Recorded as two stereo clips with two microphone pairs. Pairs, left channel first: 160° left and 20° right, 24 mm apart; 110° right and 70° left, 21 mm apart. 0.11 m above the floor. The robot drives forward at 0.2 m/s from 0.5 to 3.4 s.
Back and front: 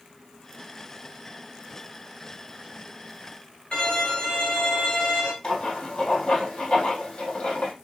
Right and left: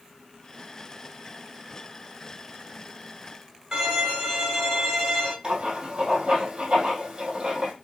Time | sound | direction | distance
3.7 | a violin | 135° left | 4.5 m
5.4 | writing | 125° left | 4.5 m